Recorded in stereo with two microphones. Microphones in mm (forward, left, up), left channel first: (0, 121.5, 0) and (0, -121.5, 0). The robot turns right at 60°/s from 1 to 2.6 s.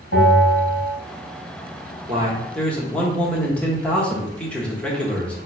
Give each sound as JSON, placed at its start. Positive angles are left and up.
{"t": 0.1, "sound": "a bell", "side_deg": 55, "distance_m": 1.7}
{"t": 2.1, "sound": "a man speaking", "azimuth_deg": -25, "distance_m": 1.0}